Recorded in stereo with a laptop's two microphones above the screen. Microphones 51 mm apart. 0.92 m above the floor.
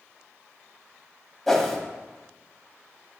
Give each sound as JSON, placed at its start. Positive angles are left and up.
{"t": 1.5, "sound": "a whoosh", "side_deg": 5, "distance_m": 0.9}